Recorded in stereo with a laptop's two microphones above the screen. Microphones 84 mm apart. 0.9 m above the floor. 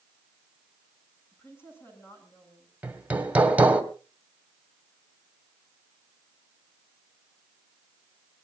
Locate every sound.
1.3 s a woman speaking: 30° left (ahead or behind), 8.5 m
2.8 s hammering: 15° right (ahead or behind), 2 m